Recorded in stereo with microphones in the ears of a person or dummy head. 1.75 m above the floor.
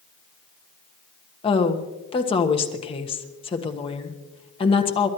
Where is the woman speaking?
30° left (ahead or behind), 1.4 m.